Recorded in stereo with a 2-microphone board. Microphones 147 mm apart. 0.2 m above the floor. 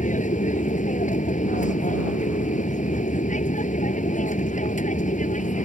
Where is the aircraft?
60° left (ahead or behind).